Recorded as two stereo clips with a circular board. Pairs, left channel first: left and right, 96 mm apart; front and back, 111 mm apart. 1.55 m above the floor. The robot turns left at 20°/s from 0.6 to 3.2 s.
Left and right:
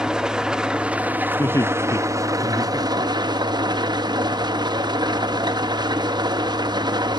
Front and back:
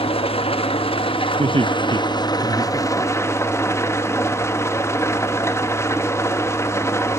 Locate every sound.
0.0 s an engine running: 10° right, 1.3 m; by 7.2 s 60° right, 1.3 m
1.4 s laughter: 145° left, 0.7 m; by 3.6 s 110° left, 0.7 m